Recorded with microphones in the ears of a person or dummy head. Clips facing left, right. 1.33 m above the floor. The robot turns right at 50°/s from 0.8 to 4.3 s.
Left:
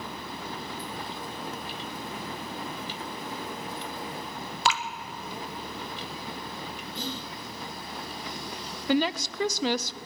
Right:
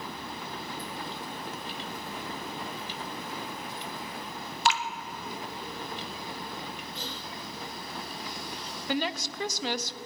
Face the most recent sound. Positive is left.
turn(degrees=65)  # may be behind; listen again after turning